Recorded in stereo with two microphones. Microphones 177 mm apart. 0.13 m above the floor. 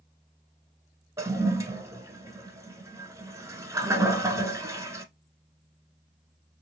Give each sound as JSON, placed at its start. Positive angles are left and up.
{"t": 1.2, "sound": "a toilet flushing", "side_deg": -20, "distance_m": 0.6}